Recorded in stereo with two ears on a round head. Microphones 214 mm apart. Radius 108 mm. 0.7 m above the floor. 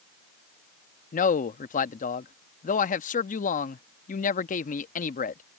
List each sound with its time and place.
1.1 s a man speaking: 35° left (ahead or behind)